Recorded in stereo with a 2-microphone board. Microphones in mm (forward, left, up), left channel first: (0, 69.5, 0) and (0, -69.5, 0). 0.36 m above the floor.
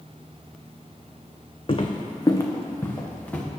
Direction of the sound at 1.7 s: 40° left (ahead or behind).